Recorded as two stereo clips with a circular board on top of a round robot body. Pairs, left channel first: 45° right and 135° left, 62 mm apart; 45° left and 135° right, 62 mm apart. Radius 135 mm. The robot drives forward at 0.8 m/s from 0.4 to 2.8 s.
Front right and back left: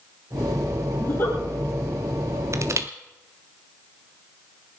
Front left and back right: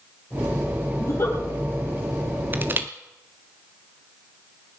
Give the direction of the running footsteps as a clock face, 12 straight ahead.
No running footsteps in this recording.